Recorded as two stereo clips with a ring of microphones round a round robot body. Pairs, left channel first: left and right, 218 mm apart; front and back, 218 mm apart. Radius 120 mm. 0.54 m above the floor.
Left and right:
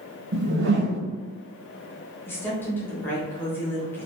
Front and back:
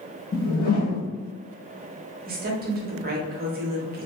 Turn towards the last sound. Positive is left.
turn(degrees=165)